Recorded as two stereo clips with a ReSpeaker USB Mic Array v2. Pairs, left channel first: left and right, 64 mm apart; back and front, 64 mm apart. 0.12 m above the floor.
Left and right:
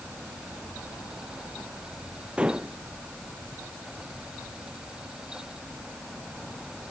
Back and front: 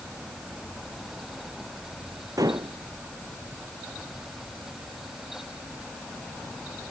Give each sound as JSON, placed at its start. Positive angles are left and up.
{"t": 2.4, "sound": "dishes clattering", "azimuth_deg": -15}